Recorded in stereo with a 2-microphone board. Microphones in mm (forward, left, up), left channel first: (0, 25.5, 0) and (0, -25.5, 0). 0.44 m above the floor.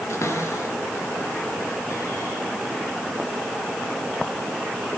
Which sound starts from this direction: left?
A cupboard door, at 0.1 s.